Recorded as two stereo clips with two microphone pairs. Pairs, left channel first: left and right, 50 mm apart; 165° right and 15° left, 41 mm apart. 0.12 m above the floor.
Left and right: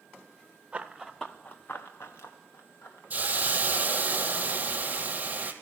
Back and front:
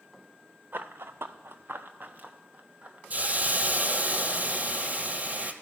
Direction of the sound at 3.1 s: 35° right.